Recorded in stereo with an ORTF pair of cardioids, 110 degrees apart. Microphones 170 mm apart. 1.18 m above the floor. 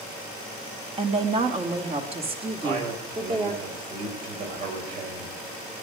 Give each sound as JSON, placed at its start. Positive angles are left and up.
{"t": 1.0, "sound": "a woman speaking", "azimuth_deg": -35, "distance_m": 1.8}
{"t": 2.6, "sound": "a man speaking", "azimuth_deg": -65, "distance_m": 5.0}